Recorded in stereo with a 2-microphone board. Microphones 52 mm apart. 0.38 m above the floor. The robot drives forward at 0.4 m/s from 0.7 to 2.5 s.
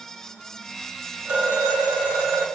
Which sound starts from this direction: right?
A phone ringing, at 1.2 s.